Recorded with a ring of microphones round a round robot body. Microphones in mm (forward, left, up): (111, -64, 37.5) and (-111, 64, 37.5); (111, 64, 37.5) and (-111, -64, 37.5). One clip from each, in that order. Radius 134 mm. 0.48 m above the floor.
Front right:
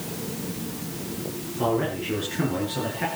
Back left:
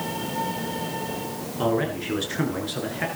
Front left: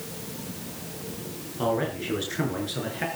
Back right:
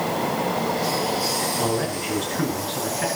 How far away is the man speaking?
About 7.5 m.